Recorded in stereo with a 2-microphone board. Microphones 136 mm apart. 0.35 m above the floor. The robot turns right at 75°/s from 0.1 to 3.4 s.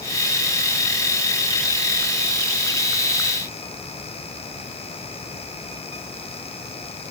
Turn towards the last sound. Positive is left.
No sound to turn to.